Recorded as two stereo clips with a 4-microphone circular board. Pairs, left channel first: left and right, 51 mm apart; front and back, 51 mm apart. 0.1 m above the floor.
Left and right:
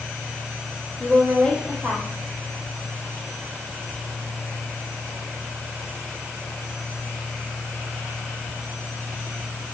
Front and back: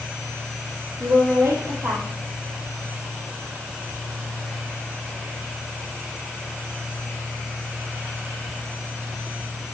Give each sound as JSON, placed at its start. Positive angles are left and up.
{"t": 1.0, "sound": "a woman speaking", "azimuth_deg": 165, "distance_m": 3.5}